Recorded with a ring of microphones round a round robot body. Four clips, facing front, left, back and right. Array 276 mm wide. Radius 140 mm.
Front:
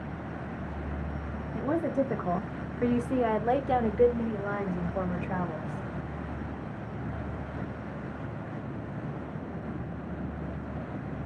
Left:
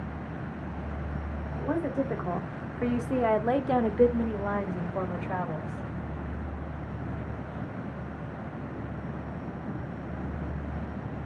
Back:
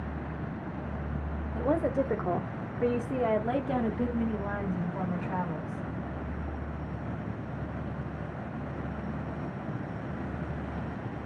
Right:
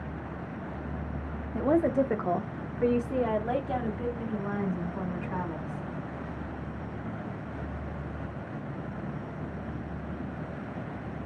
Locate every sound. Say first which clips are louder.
1.5 s a woman speaking: right 5 dB, back 1 dB; 105° right, 1.0 m; by 5.8 s 65° left, 2 m